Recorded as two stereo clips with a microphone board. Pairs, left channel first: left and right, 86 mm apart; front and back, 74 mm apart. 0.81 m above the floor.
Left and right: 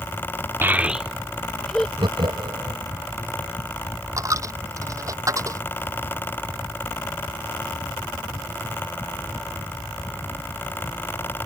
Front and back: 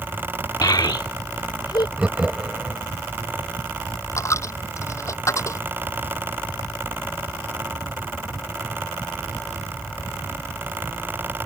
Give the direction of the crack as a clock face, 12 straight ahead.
I don't hear a crack.